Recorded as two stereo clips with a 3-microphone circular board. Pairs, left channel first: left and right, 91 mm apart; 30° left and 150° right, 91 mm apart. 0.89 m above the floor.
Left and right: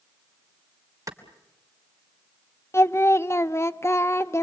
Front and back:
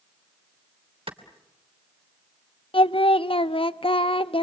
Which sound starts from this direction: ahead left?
Singing, at 2.7 s.